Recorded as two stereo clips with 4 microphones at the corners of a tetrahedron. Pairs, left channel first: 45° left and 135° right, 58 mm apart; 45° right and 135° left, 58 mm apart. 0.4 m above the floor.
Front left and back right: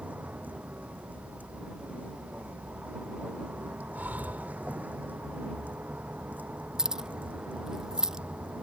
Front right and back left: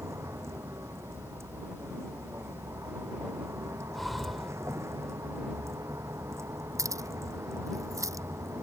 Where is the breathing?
135° right.